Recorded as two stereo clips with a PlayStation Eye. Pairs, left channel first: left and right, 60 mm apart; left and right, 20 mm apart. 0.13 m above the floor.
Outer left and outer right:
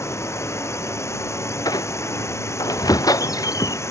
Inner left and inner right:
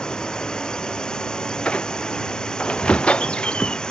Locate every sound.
0.0 s a drone: 50° left (ahead or behind)
1.6 s a squeak: 80° left